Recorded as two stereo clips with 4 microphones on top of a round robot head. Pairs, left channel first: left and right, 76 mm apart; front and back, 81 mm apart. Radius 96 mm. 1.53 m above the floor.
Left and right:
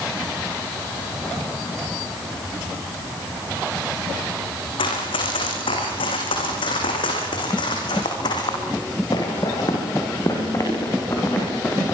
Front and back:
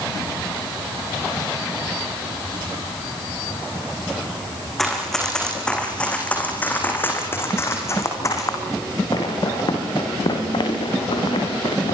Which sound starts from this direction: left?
Running footsteps, at 4.8 s.